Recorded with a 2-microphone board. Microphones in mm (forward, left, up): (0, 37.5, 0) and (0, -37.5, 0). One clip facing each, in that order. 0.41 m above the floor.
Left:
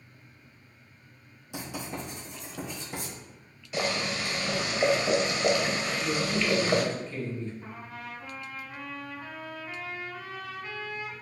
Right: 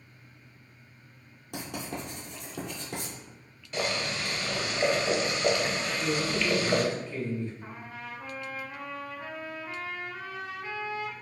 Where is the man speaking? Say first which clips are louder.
Right 1 dB; 15° right (ahead or behind), 1.9 m.